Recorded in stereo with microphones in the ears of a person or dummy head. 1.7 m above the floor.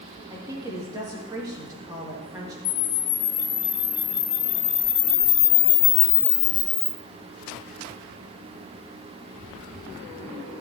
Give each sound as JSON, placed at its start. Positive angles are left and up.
{"t": 0.3, "sound": "a woman speaking", "side_deg": -15, "distance_m": 2.5}
{"t": 2.6, "sound": "a camera shutter", "side_deg": 65, "distance_m": 1.2}